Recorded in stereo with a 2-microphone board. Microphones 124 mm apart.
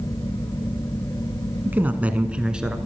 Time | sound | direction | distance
1.6 | a man speaking | 15° right (ahead or behind) | 1.1 m